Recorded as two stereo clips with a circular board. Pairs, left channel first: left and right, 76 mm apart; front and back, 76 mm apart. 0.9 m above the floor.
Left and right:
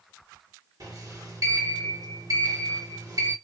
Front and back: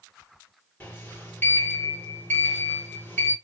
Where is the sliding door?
60° right, 1.6 m.